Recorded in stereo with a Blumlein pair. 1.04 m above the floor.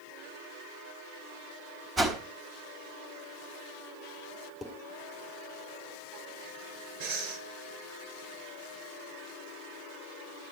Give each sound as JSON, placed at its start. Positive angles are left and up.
{"t": 2.0, "sound": "a whoosh", "azimuth_deg": -15, "distance_m": 3.5}
{"t": 4.6, "sound": "dishes clattering", "azimuth_deg": 5, "distance_m": 2.5}
{"t": 7.0, "sound": "breathing", "azimuth_deg": -45, "distance_m": 5.0}